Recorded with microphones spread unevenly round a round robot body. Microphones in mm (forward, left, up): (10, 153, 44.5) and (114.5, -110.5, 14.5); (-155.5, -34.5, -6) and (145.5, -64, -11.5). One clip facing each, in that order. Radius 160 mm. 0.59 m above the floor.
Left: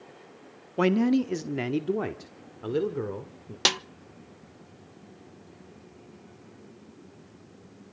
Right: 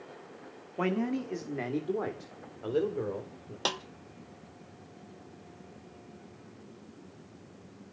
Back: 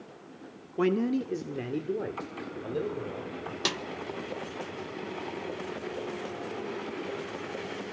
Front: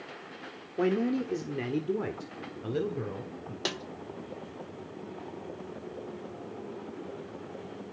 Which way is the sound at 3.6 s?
110° left.